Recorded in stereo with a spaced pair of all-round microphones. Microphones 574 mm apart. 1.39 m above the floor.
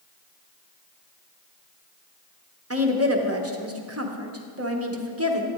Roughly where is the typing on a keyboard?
I don't hear typing on a keyboard.